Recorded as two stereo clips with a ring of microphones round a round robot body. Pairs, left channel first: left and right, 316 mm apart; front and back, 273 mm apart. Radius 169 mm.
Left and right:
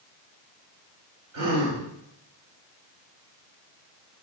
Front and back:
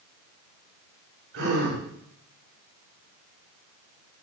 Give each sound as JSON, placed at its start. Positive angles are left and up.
{"t": 1.3, "sound": "a gasp", "azimuth_deg": -125, "distance_m": 7.5}